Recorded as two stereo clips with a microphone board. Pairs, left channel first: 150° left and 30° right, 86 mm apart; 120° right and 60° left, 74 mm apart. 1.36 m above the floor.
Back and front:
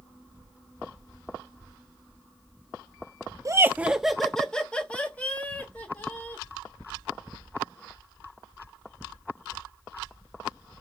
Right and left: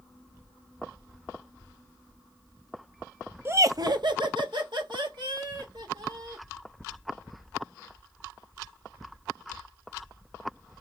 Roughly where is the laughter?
Ahead.